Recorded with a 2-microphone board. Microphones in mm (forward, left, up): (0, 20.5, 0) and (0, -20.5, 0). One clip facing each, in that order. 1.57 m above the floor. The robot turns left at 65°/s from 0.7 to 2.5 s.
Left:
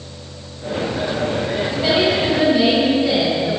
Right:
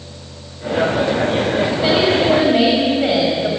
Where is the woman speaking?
5° right, 8 m; by 3.5 s 55° right, 8 m.